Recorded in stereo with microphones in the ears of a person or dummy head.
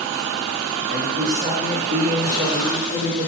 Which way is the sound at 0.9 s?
45° right (ahead or behind).